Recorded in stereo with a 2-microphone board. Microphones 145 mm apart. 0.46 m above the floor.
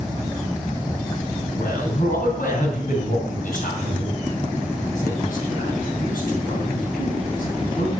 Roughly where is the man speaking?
Left.